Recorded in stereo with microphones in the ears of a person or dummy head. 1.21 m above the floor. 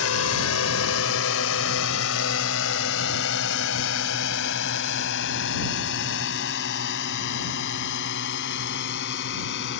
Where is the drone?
75° left (ahead or behind).